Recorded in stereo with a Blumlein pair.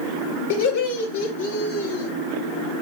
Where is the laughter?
60° left, 6.5 m; by 2.1 s 75° left, 6 m.